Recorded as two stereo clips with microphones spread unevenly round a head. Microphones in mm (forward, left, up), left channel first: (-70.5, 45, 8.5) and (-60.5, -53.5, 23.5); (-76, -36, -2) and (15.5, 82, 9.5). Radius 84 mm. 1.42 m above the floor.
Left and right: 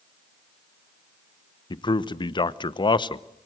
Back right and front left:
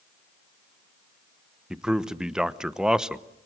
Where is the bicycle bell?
No bicycle bell in this recording.